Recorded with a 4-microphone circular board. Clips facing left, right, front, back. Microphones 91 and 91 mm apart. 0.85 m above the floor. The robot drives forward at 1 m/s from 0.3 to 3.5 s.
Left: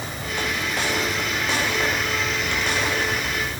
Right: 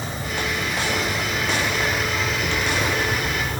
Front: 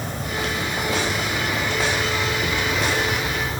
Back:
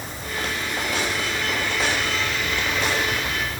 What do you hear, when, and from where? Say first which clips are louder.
0.0 s an insect: right 1 dB, front 3 dB; 30° right; by 3.6 s 55° right